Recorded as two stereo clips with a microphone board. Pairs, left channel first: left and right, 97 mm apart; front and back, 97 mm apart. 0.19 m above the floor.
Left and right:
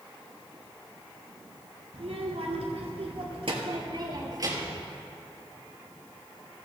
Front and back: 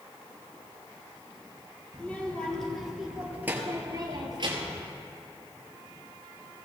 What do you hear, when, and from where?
1.9 s a child speaking: 75° right, 2.5 m; by 4.8 s 150° right, 2 m